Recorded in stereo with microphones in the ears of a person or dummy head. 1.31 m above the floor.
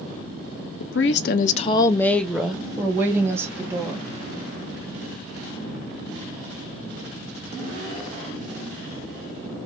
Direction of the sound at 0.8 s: 60° left (ahead or behind).